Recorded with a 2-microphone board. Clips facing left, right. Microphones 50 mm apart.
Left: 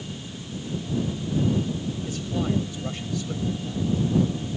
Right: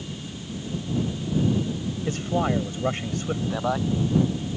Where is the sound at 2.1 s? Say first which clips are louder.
Right 4 dB; 45° right (ahead or behind).